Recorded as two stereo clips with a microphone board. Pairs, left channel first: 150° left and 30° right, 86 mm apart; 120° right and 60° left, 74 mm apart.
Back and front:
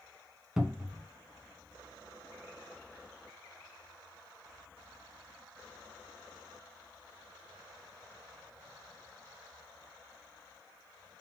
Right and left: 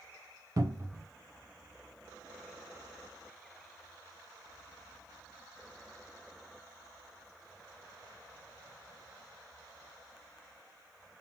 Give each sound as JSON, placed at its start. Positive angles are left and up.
{"t": 0.6, "sound": "a cupboard door", "azimuth_deg": 50, "distance_m": 0.7}